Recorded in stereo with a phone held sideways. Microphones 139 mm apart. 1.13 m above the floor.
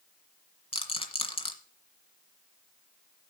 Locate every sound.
0.7 s a rattle: 45° left (ahead or behind), 1.6 m